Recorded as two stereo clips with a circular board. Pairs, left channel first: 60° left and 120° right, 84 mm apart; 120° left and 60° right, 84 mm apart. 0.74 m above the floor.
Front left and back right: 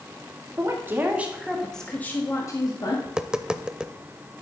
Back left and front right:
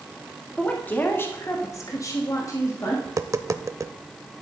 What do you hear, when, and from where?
0.6 s a woman speaking: 170° right, 1.8 m; by 3.0 s 75° left, 1.7 m
3.0 s tapping: 45° right, 0.5 m